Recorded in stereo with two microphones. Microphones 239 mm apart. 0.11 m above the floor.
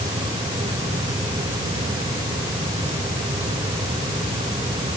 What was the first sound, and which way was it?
Only background noise.